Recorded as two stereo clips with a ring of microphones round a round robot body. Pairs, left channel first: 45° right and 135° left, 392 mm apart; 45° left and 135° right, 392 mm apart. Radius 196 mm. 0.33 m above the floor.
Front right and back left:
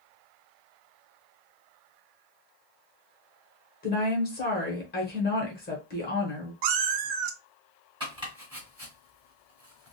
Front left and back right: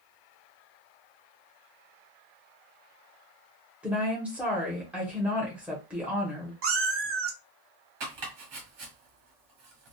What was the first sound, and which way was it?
A woman speaking, 55° right.